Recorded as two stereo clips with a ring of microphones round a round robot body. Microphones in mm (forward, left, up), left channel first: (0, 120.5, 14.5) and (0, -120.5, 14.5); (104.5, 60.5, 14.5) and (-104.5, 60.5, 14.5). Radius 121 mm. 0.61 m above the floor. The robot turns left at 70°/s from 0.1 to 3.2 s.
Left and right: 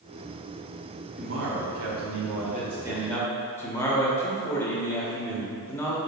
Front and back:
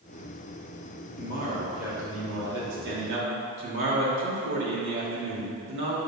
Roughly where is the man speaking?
Ahead right.